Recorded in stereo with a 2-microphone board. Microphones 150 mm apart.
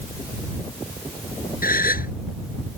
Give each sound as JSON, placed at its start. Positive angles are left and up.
{"t": 1.6, "sound": "a gasp", "side_deg": 75}